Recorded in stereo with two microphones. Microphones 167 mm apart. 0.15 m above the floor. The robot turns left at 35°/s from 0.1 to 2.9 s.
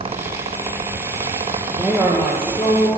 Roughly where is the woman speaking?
Behind.